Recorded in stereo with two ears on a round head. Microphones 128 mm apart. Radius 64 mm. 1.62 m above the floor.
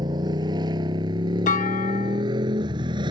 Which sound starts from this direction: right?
A motorcycle, at 0.0 s.